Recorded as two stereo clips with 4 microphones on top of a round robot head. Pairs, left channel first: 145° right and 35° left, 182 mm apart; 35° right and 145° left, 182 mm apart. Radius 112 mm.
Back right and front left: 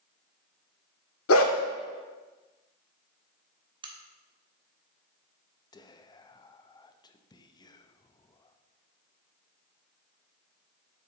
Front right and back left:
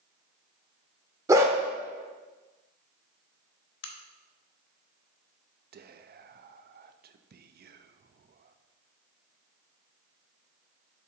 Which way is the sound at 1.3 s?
140° right.